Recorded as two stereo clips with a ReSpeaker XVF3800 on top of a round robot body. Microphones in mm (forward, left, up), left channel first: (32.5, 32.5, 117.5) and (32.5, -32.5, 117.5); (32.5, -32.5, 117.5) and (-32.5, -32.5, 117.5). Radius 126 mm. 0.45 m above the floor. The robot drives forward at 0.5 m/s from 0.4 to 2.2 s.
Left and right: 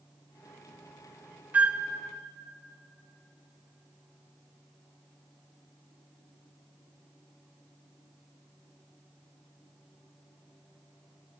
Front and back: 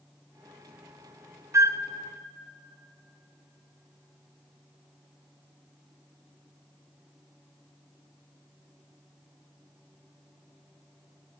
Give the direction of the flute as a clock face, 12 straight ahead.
5 o'clock.